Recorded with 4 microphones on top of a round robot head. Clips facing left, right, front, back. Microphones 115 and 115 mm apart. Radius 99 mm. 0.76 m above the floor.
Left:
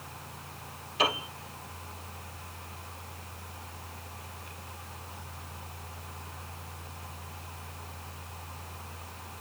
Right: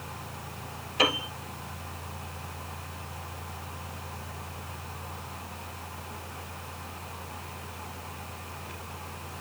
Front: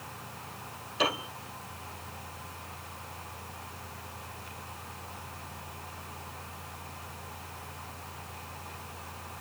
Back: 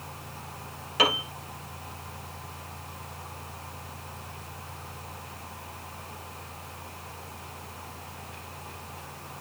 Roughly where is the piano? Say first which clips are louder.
Right 2 dB, back 4 dB; behind right.